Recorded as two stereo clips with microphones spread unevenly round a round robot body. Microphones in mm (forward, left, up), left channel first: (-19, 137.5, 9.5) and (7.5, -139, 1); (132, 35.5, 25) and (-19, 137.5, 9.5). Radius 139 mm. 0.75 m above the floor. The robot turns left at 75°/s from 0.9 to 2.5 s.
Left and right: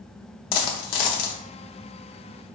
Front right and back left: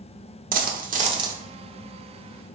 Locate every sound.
0.5 s a dropped coin: 100° left, 0.9 m; by 1.4 s 65° left, 0.9 m